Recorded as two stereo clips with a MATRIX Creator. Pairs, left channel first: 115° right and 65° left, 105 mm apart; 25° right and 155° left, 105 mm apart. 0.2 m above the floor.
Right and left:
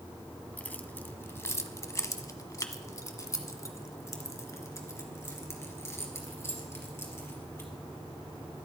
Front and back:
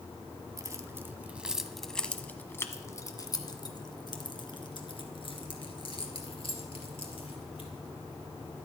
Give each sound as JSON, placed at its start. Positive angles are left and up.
{"t": 0.6, "sound": "keys jangling", "azimuth_deg": -175, "distance_m": 1.1}